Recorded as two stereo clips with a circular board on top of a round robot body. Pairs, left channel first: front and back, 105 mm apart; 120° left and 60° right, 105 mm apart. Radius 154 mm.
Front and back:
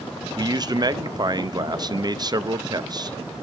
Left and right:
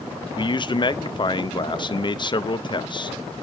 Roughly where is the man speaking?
Behind left.